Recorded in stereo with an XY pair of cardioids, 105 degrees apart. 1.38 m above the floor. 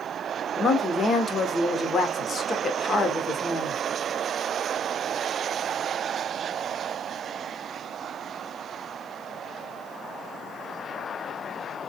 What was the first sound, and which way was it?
A woman speaking, 40° left.